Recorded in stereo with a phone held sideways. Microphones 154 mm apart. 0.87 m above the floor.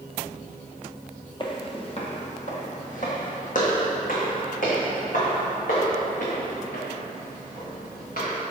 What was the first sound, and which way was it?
Footsteps, 30° left (ahead or behind).